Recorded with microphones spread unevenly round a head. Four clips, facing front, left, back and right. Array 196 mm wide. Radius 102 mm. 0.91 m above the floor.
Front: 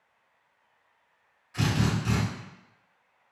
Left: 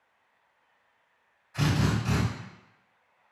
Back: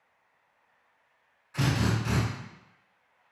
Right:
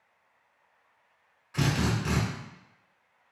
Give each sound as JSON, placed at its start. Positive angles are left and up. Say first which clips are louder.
{"t": 1.5, "sound": "a drill", "louder": "left 1 dB, front 1 dB", "azimuth_deg": -100, "distance_m": 1.5}